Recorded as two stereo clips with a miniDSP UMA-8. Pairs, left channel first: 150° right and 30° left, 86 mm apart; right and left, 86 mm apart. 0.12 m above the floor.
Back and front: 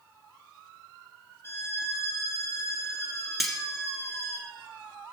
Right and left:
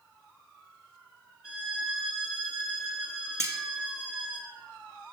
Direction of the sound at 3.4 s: 120° left.